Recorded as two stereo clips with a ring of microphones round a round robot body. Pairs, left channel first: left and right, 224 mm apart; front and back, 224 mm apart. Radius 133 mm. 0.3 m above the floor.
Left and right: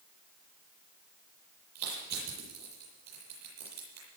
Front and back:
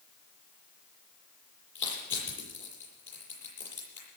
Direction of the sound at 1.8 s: 35° right.